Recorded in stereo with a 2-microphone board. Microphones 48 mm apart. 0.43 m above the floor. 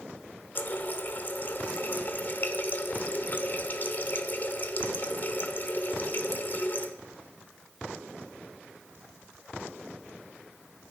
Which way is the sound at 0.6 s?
45° left (ahead or behind).